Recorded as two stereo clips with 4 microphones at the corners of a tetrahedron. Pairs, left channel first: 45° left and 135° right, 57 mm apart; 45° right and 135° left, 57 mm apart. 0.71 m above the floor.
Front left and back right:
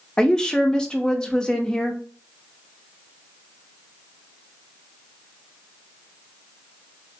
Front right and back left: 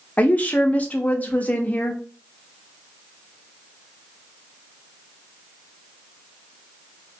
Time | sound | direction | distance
0.2 | a woman speaking | 20° right | 0.6 m